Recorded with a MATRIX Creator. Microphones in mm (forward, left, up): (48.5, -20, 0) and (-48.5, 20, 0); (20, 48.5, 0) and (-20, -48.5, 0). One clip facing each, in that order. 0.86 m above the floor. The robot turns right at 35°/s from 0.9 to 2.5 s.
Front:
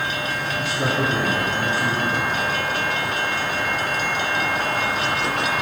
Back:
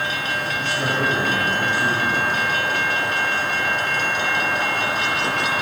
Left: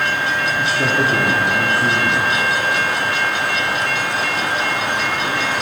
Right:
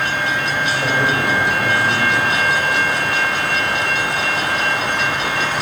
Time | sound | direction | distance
0.6 | a man speaking | 55° left | 1.4 m